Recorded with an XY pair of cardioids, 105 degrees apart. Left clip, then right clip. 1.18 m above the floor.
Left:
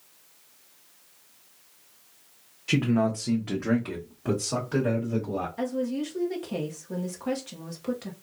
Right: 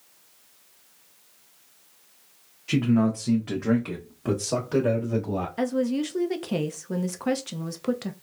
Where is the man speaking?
25° left, 0.7 m; by 5.5 s 35° right, 1.6 m.